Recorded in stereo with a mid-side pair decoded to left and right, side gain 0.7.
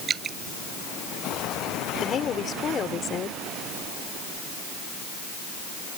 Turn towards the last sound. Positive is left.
turn(degrees=35)